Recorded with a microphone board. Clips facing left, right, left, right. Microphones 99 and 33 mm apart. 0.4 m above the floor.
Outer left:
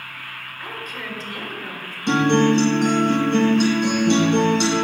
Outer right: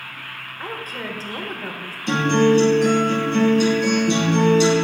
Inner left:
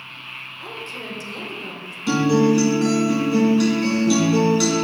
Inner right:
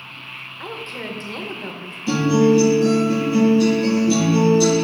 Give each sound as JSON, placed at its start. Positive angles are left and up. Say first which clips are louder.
{"t": 0.6, "sound": "a woman speaking", "louder": "outer right 3 dB, inner right 4 dB", "side_deg": -35, "distance_m": 0.9}
{"t": 2.1, "sound": "a guitar", "louder": "even, inner right 1 dB", "side_deg": 65, "distance_m": 3.0}